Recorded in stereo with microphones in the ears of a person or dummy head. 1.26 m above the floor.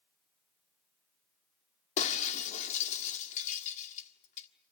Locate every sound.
2.0 s breaking glass: 40° left (ahead or behind), 1.5 m